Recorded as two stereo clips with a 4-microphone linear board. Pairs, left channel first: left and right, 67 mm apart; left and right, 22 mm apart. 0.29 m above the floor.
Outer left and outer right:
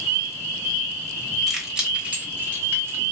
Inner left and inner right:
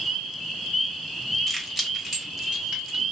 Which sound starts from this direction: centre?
Keys jangling, at 1.5 s.